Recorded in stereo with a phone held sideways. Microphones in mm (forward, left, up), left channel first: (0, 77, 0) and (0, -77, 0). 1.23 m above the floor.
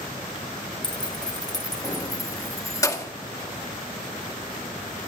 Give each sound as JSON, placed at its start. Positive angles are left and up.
{"t": 0.8, "sound": "keys jangling", "side_deg": 30, "distance_m": 0.7}